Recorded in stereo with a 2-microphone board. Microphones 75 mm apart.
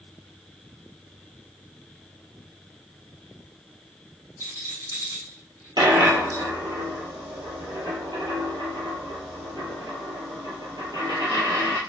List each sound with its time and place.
4.4 s a rattle: 60° right (ahead or behind), 2 m
5.8 s a dropped coin: 75° right (ahead or behind), 1.6 m